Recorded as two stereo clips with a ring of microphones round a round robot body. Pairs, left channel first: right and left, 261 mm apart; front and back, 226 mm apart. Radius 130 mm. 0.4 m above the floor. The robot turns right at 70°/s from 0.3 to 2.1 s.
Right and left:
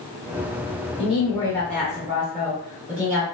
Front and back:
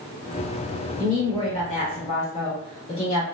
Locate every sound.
1.0 s a woman speaking: 60° right, 0.9 m; by 3.2 s 15° left, 0.9 m